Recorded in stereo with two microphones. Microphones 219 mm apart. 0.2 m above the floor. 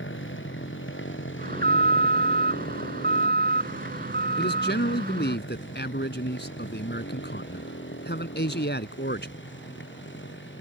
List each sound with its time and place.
0.0 s a motorcycle: 60° left (ahead or behind)
1.4 s an alarm: 45° right (ahead or behind)
4.4 s a man speaking: 55° left (ahead or behind)